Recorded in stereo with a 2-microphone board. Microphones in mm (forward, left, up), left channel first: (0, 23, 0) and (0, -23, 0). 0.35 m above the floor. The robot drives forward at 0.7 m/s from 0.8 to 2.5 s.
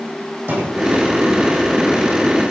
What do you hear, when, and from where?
0.5 s a thud: 55° right (ahead or behind), 9 m